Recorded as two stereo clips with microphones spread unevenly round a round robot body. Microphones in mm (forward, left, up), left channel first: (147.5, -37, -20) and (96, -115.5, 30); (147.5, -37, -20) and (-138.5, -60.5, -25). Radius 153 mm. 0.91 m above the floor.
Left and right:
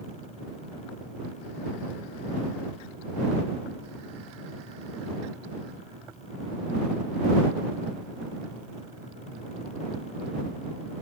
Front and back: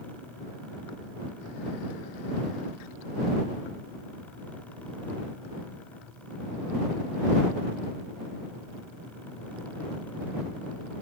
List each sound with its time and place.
Only background noise.